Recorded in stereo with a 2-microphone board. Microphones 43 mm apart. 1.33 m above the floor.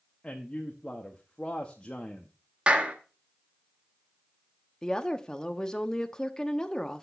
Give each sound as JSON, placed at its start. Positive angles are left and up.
{"t": 0.2, "sound": "a man speaking", "side_deg": 30, "distance_m": 0.7}
{"t": 2.7, "sound": "a clap", "side_deg": -25, "distance_m": 1.0}
{"t": 4.8, "sound": "a woman speaking", "side_deg": 20, "distance_m": 0.7}